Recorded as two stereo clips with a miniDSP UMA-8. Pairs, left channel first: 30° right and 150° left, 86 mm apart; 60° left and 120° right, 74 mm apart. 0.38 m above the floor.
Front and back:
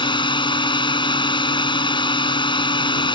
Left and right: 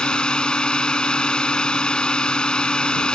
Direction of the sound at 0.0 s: 20° right.